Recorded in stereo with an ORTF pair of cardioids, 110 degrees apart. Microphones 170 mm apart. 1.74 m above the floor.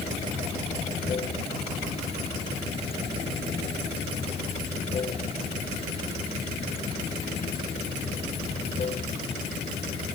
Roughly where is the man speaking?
I don't hear a man speaking.